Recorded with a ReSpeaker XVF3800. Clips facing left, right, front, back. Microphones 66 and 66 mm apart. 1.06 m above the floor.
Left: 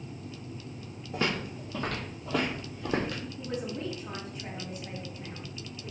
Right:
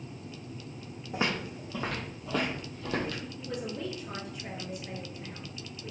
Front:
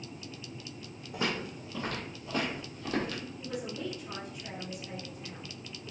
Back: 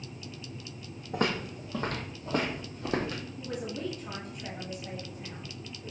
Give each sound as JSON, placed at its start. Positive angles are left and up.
{"t": 1.1, "sound": "footsteps", "azimuth_deg": -160, "distance_m": 1.8}
{"t": 3.4, "sound": "a man speaking", "azimuth_deg": 145, "distance_m": 1.8}